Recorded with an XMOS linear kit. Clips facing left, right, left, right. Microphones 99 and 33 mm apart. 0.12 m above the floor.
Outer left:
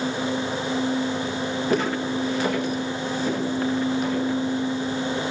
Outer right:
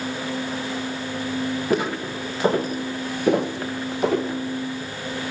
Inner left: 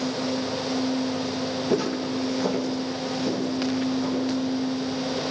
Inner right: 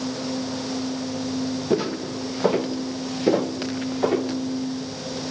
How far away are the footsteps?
About 1.7 m.